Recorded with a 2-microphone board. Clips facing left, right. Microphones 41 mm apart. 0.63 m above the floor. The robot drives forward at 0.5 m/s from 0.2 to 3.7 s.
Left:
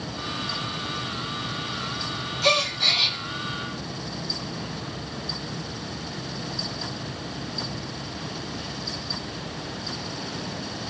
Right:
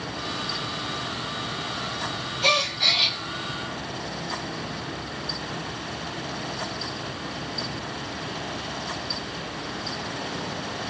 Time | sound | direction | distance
2.4 | a gasp | 20° right (ahead or behind) | 2.5 m